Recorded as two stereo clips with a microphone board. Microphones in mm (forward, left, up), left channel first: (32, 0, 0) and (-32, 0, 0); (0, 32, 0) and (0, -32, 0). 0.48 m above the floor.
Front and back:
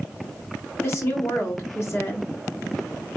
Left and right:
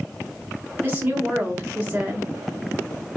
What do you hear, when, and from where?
0.8 s a woman speaking: 35° right, 2 m